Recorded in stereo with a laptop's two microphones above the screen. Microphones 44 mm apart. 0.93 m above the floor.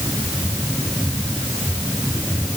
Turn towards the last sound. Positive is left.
No sound to turn to.